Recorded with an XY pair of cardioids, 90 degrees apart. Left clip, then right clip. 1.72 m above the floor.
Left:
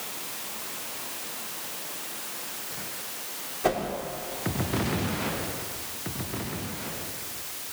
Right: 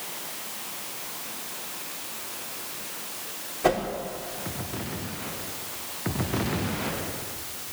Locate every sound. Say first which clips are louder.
3.6 s a whoosh: right 3 dB; 20° right, 6 m